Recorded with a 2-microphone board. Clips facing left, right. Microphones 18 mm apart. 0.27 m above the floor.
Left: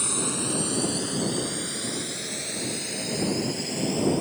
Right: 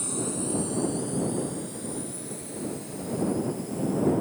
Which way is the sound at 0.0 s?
45° left (ahead or behind).